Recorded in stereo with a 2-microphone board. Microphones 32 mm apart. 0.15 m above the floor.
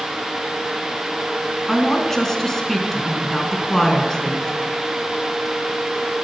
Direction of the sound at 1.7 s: 15° left (ahead or behind).